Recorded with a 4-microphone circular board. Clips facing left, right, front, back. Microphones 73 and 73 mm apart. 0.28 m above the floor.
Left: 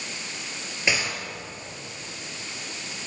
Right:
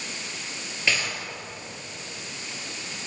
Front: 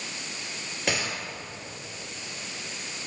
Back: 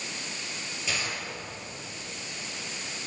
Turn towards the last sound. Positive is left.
turn(degrees=20)